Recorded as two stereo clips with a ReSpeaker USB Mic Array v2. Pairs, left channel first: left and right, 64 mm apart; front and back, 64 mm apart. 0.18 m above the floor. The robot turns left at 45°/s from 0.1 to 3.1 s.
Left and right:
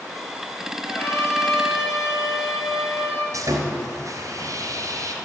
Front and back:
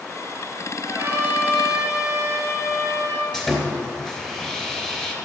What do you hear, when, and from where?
0.8 s a trumpet: 150° left, 3 m; by 3.2 s 45° left, 3 m
3.3 s sawing: 80° right, 2.5 m